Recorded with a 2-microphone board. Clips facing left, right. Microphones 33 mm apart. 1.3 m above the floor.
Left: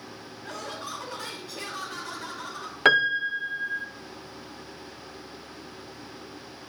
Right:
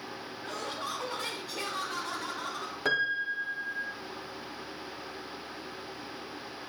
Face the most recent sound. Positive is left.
turn(degrees=70)  # may be behind; listen again after turning